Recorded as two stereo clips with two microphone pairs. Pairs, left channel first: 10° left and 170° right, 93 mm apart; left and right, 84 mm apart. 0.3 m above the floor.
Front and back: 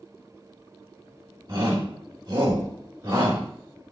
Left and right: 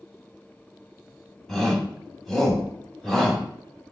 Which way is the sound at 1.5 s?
170° left.